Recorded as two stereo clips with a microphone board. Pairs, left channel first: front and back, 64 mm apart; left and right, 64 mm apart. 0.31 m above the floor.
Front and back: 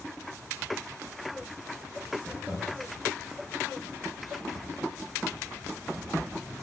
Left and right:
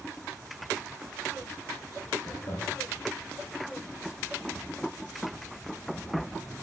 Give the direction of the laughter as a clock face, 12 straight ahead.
9 o'clock.